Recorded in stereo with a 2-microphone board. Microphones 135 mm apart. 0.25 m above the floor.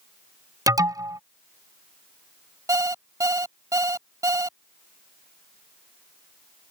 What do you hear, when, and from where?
0.7 s an alarm: 25° right (ahead or behind)
2.7 s an alarm clock: 25° right (ahead or behind)